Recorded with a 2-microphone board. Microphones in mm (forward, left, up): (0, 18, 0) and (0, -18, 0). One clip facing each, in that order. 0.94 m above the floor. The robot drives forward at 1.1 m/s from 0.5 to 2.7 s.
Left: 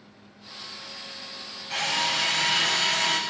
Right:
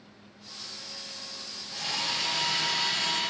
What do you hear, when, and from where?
1.7 s a drill: 70° left (ahead or behind), 7 m; by 3.2 s 75° left (ahead or behind), 6.5 m